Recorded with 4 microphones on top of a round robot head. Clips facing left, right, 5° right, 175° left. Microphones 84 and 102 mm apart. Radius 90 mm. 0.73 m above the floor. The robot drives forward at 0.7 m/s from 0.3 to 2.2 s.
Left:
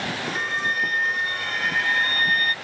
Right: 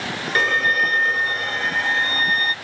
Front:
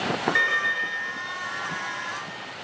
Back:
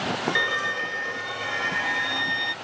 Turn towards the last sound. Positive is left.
turn(degrees=-150)